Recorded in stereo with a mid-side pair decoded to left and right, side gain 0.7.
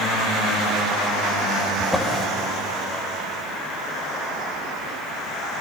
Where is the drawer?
10° left, 4 m.